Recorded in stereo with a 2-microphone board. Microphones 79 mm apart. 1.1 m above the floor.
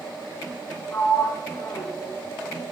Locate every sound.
0.9 s a sliding door: 35° left (ahead or behind), 4.5 m